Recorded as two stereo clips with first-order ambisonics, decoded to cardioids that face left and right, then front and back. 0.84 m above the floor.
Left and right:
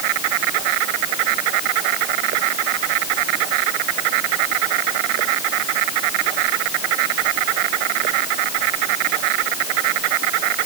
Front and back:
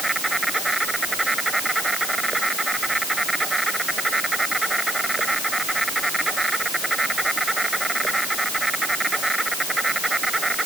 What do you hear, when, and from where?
0.0 s an insect: 95° right